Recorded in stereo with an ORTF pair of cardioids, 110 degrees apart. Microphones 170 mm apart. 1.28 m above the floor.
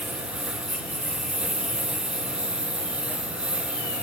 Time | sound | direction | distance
0.0 | a lawn mower | 5° right | ?